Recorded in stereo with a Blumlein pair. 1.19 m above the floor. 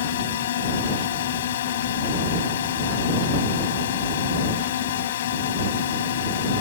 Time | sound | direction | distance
0.0 | a drone | 60° left | ?